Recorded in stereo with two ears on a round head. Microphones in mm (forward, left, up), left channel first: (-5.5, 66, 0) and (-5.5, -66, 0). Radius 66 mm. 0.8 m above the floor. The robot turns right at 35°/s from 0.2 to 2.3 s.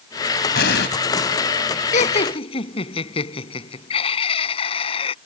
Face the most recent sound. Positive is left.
turn(degrees=40)  # may be behind; listen again after turning